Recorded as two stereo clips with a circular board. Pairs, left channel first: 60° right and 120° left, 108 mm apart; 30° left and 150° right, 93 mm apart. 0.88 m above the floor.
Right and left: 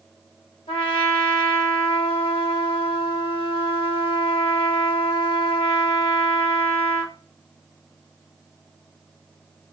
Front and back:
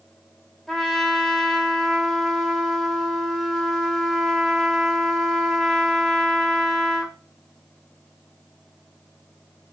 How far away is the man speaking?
I don't hear a man speaking.